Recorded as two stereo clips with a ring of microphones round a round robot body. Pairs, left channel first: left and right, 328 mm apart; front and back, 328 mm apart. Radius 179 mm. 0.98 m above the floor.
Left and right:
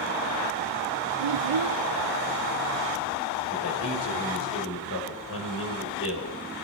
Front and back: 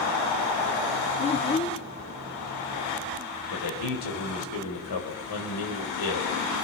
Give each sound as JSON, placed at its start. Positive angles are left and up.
{"t": 1.2, "sound": "a child speaking", "azimuth_deg": -75, "distance_m": 0.9}
{"t": 3.5, "sound": "a man speaking", "azimuth_deg": 35, "distance_m": 5.0}